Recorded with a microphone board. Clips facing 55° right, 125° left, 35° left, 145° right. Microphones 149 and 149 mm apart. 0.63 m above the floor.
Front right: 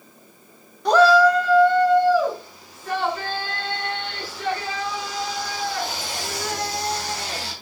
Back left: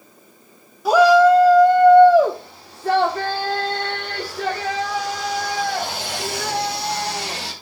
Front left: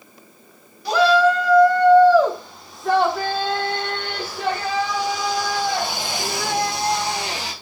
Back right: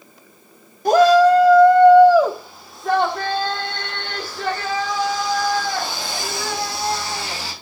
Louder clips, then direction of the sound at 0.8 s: Back left 3 dB, back right 4 dB; 155° right.